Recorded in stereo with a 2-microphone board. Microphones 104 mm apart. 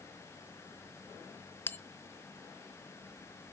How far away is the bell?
About 0.8 m.